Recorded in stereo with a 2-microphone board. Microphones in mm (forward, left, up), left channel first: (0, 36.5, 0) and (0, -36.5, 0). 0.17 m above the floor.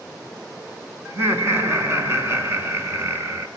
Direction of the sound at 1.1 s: 35° right (ahead or behind).